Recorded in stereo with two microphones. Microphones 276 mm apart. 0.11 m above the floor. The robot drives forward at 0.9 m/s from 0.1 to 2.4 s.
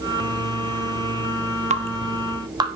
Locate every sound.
1.7 s dripping: 25° right (ahead or behind), 0.8 m; by 2.7 s 15° right (ahead or behind), 1.3 m